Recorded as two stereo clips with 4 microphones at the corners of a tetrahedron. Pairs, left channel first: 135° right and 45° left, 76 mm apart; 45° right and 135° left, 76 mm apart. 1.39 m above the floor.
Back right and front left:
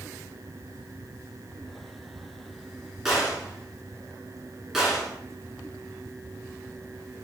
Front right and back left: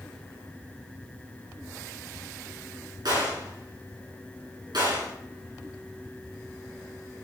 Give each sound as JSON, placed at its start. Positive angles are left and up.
{"t": 3.0, "sound": "a gunshot", "azimuth_deg": 135, "distance_m": 4.0}